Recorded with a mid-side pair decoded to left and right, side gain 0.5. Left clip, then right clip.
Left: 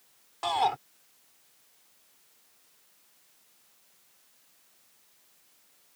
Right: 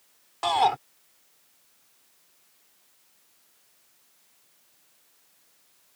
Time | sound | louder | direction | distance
0.4 | a shout | right 5 dB | 25° right | ?